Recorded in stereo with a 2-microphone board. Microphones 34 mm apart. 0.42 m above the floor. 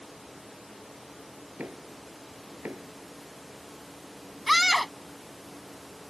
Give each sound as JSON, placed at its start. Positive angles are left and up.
{"t": 1.6, "sound": "knocking", "side_deg": -55}
{"t": 4.5, "sound": "a scream", "side_deg": 0}